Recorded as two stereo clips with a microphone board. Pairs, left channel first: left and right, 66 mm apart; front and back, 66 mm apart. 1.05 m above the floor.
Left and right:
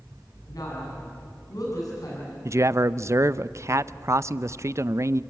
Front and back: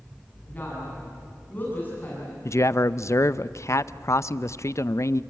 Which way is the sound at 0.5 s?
65° left.